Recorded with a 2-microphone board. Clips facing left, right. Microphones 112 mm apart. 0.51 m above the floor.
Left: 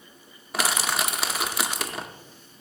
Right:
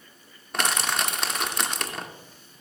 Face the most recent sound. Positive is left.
turn(degrees=5)  # may be behind; listen again after turning